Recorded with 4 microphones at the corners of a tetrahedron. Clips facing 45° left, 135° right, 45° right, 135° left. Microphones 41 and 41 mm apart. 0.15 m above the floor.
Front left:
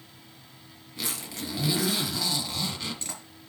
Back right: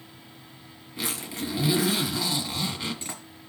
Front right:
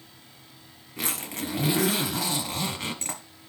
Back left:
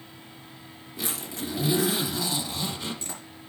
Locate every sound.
1.0 s a zipper: 60° right, 1.8 m